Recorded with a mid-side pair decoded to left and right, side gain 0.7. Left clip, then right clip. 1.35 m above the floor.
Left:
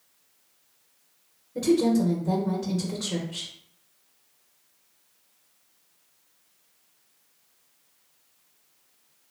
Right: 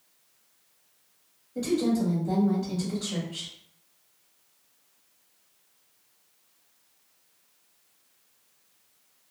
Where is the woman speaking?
40° left, 1.0 m.